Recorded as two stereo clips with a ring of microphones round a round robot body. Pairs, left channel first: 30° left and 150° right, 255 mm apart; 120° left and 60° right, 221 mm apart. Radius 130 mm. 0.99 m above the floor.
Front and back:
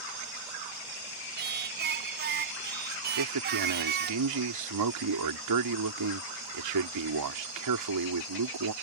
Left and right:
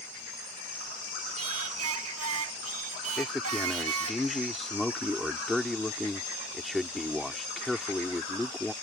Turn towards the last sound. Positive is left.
turn(degrees=-150)